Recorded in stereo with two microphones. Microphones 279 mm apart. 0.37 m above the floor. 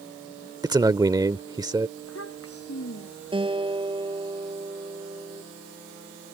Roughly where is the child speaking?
Left.